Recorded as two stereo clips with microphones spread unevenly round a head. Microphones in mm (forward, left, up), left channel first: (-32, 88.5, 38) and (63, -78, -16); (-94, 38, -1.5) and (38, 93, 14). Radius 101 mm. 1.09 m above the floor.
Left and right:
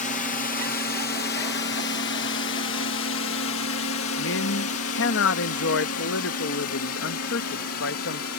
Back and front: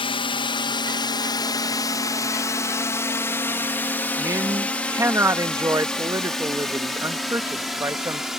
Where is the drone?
175° left; by 8.4 s 110° left.